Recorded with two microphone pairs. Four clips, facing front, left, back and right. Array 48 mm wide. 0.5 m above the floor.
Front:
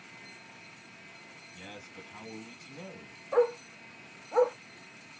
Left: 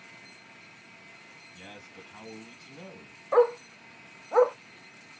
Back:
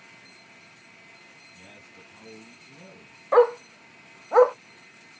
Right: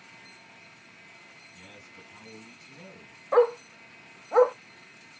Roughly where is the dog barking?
Behind.